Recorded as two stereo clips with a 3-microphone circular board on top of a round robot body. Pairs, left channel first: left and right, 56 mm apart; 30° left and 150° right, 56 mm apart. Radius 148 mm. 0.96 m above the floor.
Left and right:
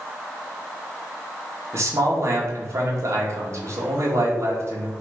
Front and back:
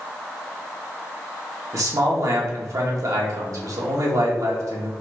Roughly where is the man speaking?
Behind right.